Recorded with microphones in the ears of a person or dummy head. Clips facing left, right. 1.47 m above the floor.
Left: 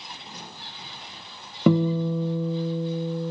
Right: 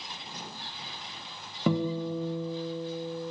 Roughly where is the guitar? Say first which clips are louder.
Left 7 dB; left.